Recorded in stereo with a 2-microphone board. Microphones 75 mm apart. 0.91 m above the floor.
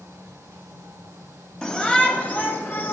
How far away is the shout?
About 2 m.